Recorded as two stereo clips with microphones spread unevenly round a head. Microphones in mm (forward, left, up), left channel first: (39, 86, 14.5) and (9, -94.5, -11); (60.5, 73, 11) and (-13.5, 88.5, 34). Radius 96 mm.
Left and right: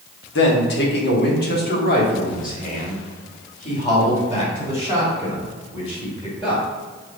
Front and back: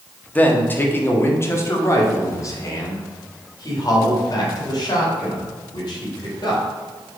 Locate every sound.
0.3 s a man speaking: 55° left, 1.6 m; by 6.6 s 20° left, 4.5 m